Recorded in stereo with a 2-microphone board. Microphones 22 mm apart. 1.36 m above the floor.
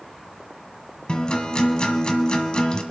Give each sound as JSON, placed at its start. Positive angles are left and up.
{"t": 1.1, "sound": "a guitar", "side_deg": 45, "distance_m": 1.7}